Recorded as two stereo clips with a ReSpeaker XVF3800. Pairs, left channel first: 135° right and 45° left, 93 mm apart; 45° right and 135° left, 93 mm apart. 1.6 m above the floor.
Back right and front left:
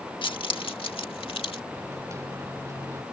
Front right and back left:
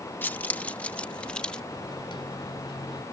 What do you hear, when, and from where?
0.2 s keys jangling: 115° right; by 1.6 s 125° right
1.7 s a microwave: 10° right